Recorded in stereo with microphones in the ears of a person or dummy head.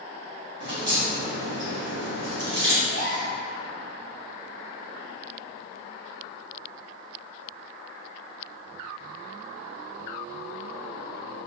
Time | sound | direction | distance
0.6 | a crack | 40° right (ahead or behind) | 1.4 m
2.8 | a gasp | 55° right (ahead or behind) | 1.5 m